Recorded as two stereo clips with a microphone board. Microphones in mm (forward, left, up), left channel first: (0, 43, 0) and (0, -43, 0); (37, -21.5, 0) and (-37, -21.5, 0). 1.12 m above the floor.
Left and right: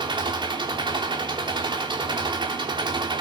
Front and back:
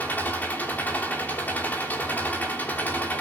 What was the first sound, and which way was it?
An engine running, 65° right.